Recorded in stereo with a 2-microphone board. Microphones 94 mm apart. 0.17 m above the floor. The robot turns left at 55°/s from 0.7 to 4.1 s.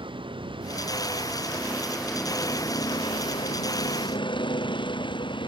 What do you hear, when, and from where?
0.0 s a vehicle: 105° right; by 5.5 s 65° left